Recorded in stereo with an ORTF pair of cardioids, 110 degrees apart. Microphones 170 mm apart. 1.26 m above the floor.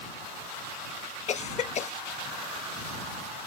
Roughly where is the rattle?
No rattle in this recording.